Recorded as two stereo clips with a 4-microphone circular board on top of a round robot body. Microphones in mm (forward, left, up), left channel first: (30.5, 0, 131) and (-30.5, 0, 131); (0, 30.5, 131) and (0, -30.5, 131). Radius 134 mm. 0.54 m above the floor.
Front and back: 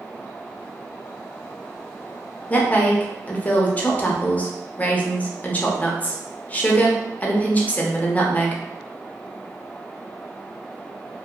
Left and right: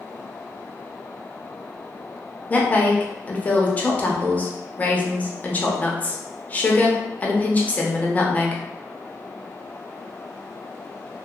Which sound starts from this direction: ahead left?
A woman speaking, at 2.5 s.